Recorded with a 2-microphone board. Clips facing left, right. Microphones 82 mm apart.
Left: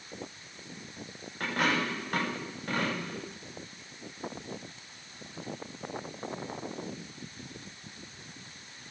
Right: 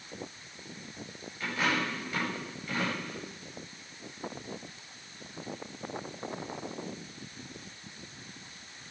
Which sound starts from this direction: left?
A dropped coin, at 1.4 s.